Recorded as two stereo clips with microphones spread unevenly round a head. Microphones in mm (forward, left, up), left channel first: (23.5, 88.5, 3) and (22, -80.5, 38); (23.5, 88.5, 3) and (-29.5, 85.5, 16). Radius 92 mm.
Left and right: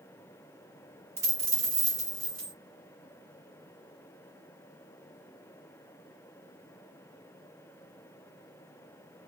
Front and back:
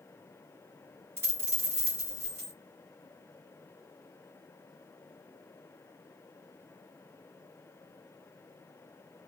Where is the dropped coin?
155° right, 1.9 m.